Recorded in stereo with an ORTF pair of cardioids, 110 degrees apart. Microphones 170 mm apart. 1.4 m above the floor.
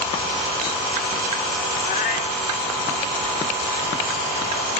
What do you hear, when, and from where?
1.8 s a cat meowing: 60° left